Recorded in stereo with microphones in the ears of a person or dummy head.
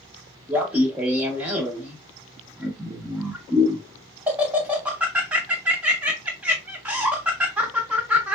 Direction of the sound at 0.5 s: 10° right (ahead or behind).